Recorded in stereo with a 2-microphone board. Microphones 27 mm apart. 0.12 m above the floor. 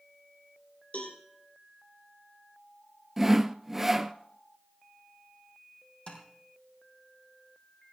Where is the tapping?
35° left (ahead or behind), 4 m.